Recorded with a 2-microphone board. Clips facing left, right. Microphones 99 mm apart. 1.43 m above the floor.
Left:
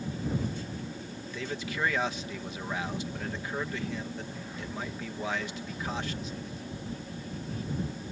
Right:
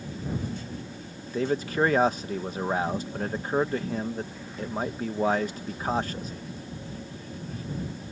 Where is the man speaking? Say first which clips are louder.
Right 10 dB; 40° right (ahead or behind).